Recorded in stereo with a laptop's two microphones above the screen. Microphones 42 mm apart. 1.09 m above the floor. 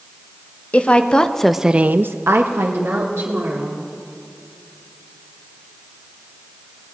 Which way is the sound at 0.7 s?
35° left (ahead or behind).